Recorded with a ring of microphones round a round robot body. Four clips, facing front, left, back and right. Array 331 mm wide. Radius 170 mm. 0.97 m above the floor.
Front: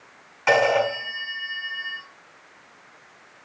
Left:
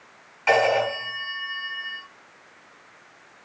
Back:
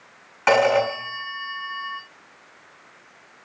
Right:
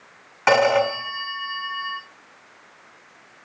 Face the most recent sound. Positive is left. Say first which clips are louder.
# right 3 dB, back 2 dB
turn(degrees=-115)